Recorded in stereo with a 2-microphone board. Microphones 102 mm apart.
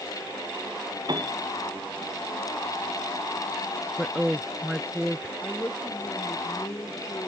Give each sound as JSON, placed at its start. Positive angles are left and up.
{"t": 1.1, "sound": "a piano", "side_deg": -45}
{"t": 4.0, "sound": "a woman speaking", "side_deg": -5}
{"t": 5.4, "sound": "a woman speaking", "side_deg": 25}